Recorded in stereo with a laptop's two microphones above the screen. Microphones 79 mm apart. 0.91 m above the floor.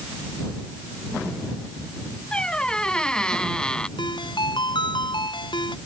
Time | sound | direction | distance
2.3 | a squeak | 10° left (ahead or behind) | ?
4.0 | a ringtone | 85° left | ?